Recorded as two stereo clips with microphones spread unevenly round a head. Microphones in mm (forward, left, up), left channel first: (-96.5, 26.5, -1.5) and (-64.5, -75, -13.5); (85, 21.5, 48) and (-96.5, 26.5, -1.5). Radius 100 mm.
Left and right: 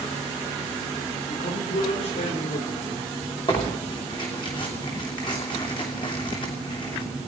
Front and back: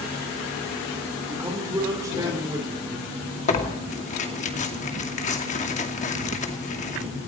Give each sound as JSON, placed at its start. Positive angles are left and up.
{"t": 1.3, "sound": "a man speaking", "azimuth_deg": 100, "distance_m": 4.0}
{"t": 3.5, "sound": "tearing paper", "azimuth_deg": 45, "distance_m": 2.5}